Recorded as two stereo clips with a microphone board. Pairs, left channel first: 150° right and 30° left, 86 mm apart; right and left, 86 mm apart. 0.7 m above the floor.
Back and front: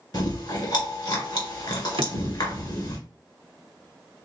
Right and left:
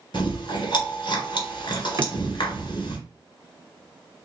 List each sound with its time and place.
0.1 s chewing: 115° right, 2.0 m
2.0 s a drawer: 45° left, 0.6 m